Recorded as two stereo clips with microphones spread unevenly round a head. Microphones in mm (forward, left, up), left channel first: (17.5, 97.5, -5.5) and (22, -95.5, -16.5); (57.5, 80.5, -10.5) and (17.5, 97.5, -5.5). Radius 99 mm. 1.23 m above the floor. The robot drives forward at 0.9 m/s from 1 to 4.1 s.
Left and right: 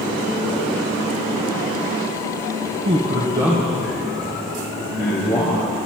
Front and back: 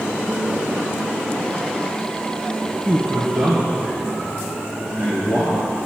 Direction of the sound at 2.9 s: 125° right.